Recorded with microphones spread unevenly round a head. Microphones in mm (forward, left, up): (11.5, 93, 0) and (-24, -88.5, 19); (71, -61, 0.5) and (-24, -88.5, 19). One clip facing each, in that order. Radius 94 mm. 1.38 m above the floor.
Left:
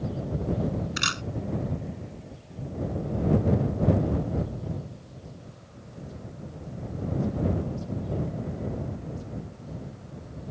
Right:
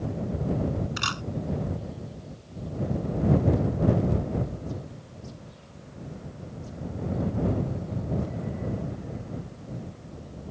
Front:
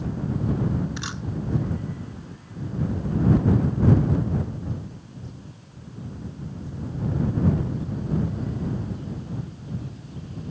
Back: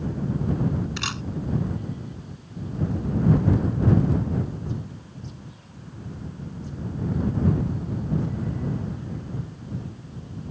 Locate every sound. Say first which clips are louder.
1.0 s a camera shutter: even, back 2 dB; 145° left